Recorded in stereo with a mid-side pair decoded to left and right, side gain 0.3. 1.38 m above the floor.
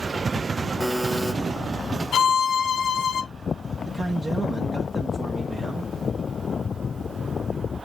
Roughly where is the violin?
Left.